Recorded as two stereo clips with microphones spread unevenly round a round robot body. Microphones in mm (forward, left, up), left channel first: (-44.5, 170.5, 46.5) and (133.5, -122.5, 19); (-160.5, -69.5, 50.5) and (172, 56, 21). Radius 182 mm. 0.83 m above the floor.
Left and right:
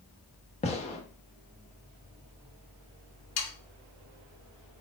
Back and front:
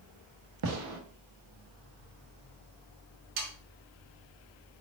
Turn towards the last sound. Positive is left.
turn(degrees=75)